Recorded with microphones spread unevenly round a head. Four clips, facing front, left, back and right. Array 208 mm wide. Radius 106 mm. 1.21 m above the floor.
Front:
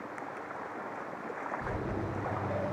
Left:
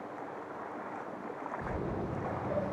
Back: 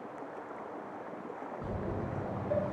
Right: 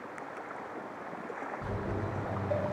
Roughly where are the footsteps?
Ahead left.